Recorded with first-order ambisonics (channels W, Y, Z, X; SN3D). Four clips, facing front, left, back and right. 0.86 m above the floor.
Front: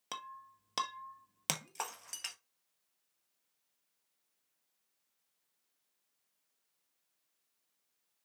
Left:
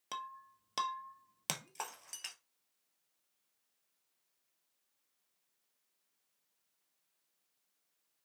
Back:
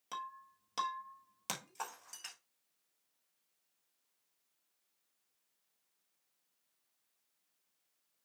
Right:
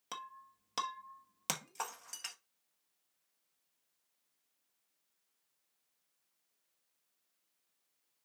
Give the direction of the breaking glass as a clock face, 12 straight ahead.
12 o'clock.